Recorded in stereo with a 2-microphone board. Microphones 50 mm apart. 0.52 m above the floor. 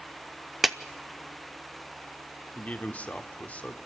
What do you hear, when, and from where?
0.6 s a clap: 5° right (ahead or behind), 0.6 m
2.5 s a man speaking: 30° left (ahead or behind), 1.3 m